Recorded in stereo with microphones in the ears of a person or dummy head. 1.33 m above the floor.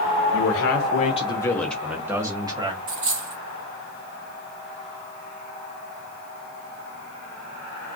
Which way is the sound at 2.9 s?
25° right (ahead or behind).